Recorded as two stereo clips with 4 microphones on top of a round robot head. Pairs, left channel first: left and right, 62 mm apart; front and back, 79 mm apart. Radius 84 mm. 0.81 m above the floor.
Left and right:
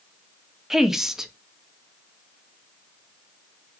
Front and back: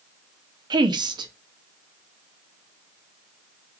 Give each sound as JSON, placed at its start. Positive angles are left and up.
{"t": 0.7, "sound": "a woman speaking", "azimuth_deg": -175, "distance_m": 0.6}